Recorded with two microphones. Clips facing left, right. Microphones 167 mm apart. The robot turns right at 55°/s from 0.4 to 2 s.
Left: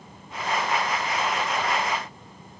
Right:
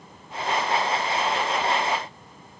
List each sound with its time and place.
Only background noise.